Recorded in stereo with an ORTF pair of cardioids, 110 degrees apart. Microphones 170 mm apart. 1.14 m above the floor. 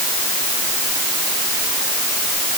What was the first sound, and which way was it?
Only background noise.